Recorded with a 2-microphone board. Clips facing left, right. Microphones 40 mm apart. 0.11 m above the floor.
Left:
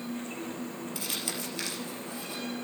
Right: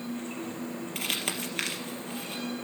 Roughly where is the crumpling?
Right.